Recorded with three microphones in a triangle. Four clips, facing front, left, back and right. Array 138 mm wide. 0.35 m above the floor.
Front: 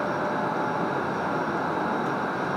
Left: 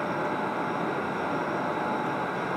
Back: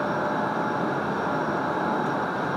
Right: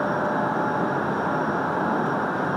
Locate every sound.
Only background noise.